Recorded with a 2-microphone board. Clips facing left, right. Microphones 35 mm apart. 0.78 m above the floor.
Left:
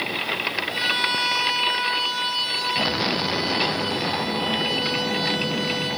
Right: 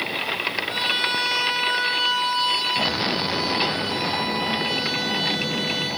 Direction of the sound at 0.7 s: 35° right (ahead or behind).